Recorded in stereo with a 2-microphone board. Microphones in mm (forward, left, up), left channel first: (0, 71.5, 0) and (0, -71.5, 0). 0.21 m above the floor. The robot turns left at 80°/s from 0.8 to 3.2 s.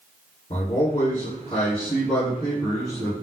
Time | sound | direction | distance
0.5 | a man speaking | 105° left | 2.0 m